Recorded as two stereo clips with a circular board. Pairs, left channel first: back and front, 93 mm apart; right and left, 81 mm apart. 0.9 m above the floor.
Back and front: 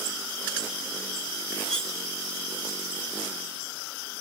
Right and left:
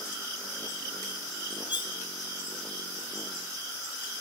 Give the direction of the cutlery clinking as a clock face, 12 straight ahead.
3 o'clock.